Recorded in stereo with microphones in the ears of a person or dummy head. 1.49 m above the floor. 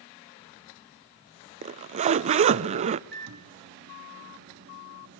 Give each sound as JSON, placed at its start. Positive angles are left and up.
{"t": 1.6, "sound": "a zipper", "side_deg": -45, "distance_m": 0.5}
{"t": 3.1, "sound": "a microwave", "side_deg": -55, "distance_m": 2.0}